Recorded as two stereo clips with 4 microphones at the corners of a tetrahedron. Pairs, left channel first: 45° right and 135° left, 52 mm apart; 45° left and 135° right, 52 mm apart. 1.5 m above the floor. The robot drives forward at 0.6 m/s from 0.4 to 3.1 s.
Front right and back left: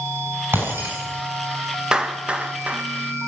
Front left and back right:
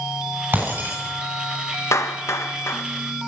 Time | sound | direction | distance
0.5 | breaking glass | 175° left | 8.5 m
1.9 | a clap | 60° left | 1.8 m